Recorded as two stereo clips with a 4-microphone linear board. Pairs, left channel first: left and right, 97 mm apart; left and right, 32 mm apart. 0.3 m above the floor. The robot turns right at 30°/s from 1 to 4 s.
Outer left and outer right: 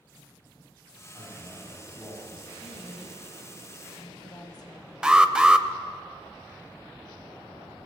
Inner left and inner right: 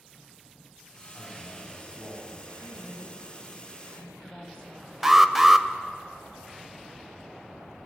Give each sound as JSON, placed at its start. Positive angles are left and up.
{"t": 1.1, "sound": "a man speaking", "azimuth_deg": -30, "distance_m": 7.0}
{"t": 2.6, "sound": "a woman speaking", "azimuth_deg": 60, "distance_m": 1.8}
{"t": 5.0, "sound": "an alarm", "side_deg": -10, "distance_m": 0.6}